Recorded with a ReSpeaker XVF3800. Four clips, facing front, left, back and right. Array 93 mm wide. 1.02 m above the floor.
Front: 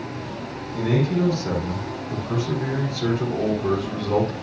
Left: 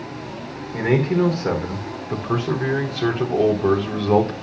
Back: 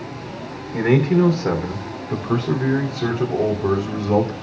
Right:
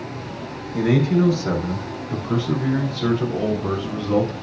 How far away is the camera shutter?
No camera shutter in this recording.